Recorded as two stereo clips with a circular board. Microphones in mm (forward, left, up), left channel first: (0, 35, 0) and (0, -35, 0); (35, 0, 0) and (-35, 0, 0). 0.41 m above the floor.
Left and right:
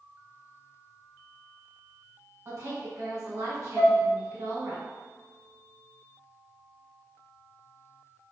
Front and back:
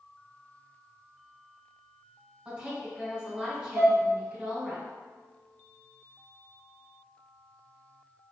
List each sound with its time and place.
2.5 s a woman speaking: 120° right, 1.2 m
3.8 s dishes clattering: 160° right, 1.6 m